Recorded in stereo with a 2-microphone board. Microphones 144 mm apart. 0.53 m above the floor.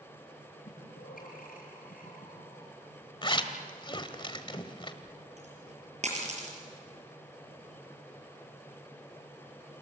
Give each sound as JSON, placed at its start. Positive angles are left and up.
{"t": 0.7, "sound": "breathing", "side_deg": 85, "distance_m": 8.0}
{"t": 3.2, "sound": "a zipper", "side_deg": 35, "distance_m": 1.6}
{"t": 5.0, "sound": "a dropped coin", "side_deg": -50, "distance_m": 5.5}